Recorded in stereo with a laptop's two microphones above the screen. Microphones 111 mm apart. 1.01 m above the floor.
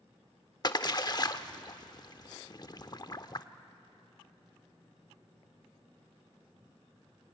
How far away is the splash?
About 0.8 m.